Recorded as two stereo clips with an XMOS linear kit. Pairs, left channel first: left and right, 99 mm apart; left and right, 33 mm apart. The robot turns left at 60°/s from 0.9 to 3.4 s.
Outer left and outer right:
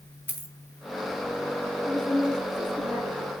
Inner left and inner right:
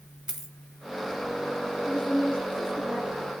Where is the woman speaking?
65° left, 6.5 m; by 3.3 s 20° right, 6.5 m.